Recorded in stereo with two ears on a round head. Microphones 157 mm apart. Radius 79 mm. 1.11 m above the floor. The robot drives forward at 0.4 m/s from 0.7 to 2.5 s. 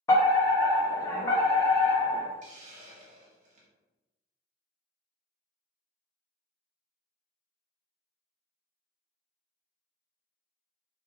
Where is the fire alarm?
15° left (ahead or behind), 1.0 m.